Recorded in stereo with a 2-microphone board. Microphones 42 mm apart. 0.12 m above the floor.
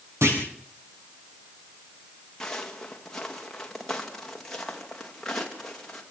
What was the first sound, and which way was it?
A clunk, 75° right (ahead or behind).